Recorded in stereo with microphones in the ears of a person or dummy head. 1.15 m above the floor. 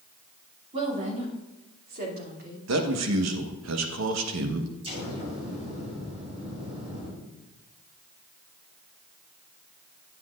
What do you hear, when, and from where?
0.7 s a woman speaking: 35° right (ahead or behind), 2.5 m; by 2.6 s 65° right (ahead or behind), 3 m
2.7 s a man speaking: 80° right, 1.2 m
4.8 s an explosion: 35° right (ahead or behind), 3 m